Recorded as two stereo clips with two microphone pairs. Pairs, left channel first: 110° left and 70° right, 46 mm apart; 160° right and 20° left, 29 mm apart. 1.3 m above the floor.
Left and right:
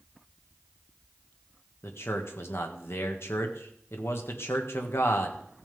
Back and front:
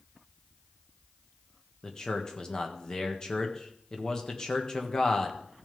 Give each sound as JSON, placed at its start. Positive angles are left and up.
{"t": 1.8, "sound": "a man speaking", "azimuth_deg": 135, "distance_m": 1.5}